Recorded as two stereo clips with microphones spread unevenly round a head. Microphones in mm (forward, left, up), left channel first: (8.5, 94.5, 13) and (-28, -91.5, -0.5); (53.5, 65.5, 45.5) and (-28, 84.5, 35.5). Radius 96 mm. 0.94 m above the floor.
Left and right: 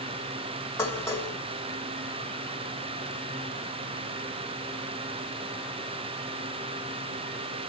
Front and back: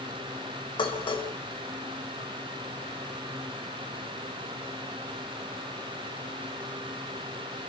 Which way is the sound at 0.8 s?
Straight ahead.